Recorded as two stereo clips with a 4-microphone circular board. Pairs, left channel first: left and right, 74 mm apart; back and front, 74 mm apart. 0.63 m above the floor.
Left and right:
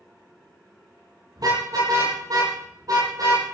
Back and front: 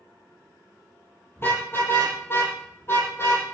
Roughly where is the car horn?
Behind right.